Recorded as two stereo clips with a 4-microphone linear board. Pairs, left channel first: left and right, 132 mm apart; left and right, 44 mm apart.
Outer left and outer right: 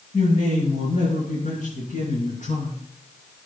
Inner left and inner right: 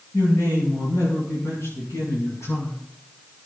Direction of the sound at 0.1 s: 85° left.